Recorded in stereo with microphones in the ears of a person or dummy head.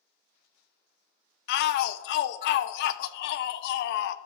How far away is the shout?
About 0.6 m.